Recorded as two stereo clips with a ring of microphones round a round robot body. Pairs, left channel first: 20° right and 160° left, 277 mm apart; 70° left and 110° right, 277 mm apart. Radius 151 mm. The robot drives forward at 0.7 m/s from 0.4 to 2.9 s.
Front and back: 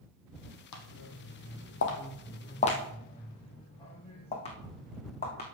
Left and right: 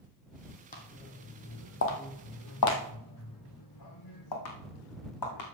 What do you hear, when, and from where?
0.7 s footsteps: 5° left, 1.7 m; by 5.4 s 45° left, 2.5 m